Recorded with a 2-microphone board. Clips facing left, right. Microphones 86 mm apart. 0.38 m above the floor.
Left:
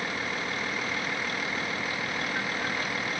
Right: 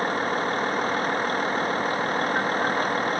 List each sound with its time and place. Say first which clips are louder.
0.0 s a vehicle: right 8 dB; 45° right (ahead or behind)